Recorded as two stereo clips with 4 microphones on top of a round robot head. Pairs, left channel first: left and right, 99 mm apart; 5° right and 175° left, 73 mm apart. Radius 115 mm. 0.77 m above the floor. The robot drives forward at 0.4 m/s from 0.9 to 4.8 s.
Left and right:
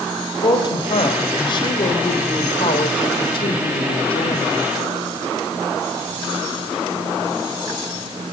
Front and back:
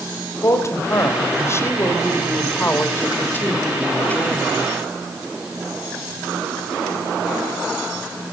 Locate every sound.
0.4 s a woman speaking: 45° left, 4 m; by 4.6 s 65° left, 3 m